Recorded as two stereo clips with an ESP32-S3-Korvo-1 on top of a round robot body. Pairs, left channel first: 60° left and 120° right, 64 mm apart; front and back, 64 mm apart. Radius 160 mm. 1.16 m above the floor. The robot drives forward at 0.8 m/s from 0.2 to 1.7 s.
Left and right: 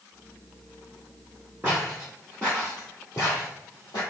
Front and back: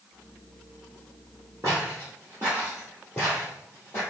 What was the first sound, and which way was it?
Footsteps, 175° left.